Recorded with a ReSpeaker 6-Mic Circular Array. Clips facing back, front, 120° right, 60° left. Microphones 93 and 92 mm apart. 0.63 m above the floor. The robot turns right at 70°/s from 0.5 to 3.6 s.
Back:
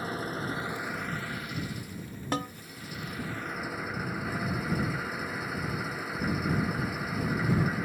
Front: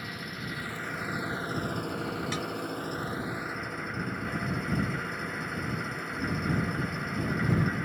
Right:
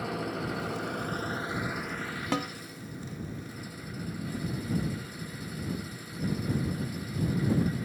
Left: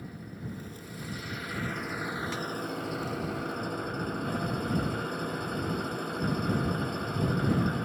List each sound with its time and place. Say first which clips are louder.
0.0 s an engine running: back 6 dB, right 9 dB; 125° right; by 7.9 s 95° left
2.3 s a snare drum: back 2 dB, right 4 dB; 135° right; by 2.5 s 120° right